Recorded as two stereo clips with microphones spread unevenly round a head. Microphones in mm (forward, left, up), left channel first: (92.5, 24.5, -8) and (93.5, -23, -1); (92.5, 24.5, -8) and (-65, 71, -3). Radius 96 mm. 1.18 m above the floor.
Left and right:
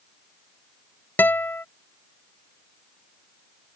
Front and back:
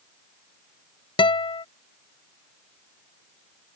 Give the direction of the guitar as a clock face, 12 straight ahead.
11 o'clock.